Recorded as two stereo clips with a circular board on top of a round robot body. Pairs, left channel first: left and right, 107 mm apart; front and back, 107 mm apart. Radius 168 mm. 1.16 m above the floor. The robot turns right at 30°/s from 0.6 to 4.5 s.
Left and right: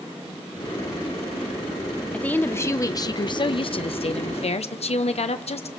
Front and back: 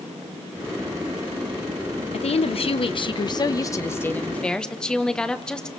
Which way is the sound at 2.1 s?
10° left.